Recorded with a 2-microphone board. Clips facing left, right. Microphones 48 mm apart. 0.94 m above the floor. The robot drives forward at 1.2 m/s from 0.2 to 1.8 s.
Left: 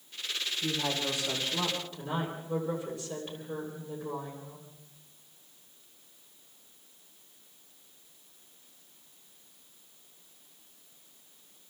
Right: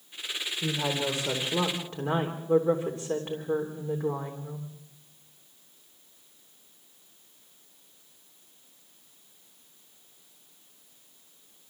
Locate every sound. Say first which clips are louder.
0.6 s a woman speaking: right 4 dB; 35° right (ahead or behind), 4 m; by 4.7 s 50° right (ahead or behind), 3 m